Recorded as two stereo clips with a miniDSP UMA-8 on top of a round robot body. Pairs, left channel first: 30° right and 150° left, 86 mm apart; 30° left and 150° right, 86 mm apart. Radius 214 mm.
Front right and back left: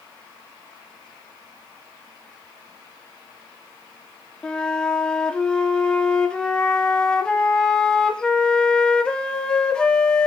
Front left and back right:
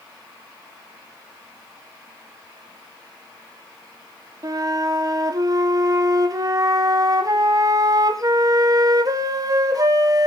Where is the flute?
110° right, 2.5 m.